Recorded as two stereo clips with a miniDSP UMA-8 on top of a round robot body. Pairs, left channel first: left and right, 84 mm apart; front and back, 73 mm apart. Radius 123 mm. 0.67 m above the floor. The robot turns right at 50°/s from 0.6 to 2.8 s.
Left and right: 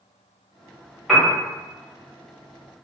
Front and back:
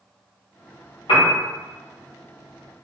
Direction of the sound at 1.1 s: 5° left.